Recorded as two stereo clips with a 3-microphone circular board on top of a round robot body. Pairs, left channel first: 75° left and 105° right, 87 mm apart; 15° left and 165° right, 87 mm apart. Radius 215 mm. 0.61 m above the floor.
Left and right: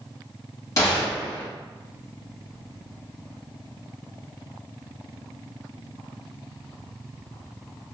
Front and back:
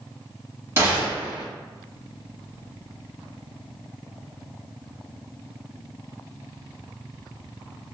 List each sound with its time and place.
0.8 s a gunshot: 130° left, 1.9 m